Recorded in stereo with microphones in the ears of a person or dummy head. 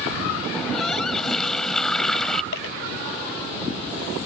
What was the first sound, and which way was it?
A running tap, centre (ahead or behind).